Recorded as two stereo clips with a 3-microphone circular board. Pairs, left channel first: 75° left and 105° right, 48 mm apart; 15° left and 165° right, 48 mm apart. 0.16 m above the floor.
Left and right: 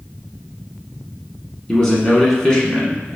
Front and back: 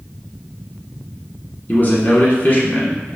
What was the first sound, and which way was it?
A man speaking, 5° left.